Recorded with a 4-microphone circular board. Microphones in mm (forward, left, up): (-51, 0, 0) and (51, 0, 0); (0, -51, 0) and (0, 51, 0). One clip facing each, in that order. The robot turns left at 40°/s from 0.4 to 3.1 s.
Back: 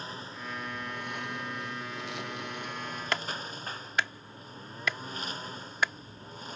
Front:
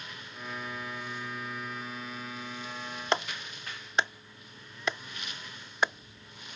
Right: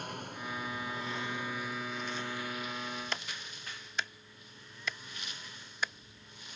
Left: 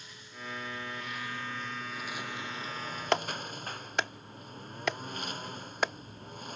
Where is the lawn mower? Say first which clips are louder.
Back 3 dB, right 6 dB; 125° right; by 6.6 s 130° left.